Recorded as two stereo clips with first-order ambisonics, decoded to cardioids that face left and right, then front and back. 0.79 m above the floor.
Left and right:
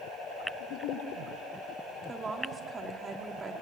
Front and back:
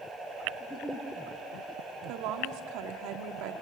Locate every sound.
0.6 s a giggle: 75° left, 8 m
2.1 s a woman speaking: 160° right, 1.9 m